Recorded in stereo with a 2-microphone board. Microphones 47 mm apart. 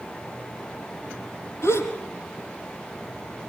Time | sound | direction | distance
1.6 | a gasp | 75° left (ahead or behind) | 4.5 m